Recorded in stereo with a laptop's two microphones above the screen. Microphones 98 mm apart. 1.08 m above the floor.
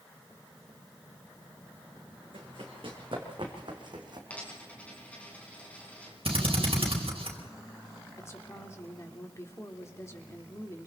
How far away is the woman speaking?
About 3.5 m.